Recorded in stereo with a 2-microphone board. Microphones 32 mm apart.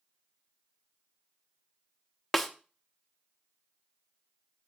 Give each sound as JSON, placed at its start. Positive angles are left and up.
{"t": 2.3, "sound": "a snare drum", "side_deg": 5, "distance_m": 0.7}